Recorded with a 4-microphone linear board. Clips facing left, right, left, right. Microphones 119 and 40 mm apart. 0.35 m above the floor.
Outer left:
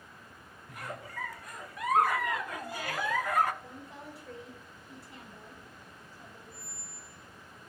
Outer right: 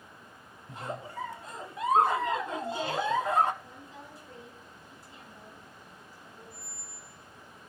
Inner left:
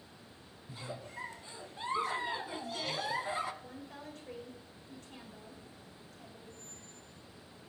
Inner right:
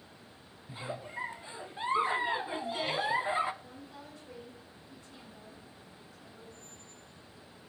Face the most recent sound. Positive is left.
turn(degrees=75)  # may be behind; listen again after turning